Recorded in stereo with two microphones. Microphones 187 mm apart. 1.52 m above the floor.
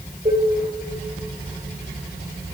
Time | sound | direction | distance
0.2 | dishes clattering | 30° right (ahead or behind) | 4 m